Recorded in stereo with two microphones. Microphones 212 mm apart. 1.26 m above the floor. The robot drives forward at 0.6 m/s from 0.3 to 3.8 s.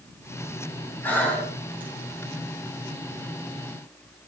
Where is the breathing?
10° left (ahead or behind), 3.5 m; by 1.9 s 5° left (ahead or behind), 4 m.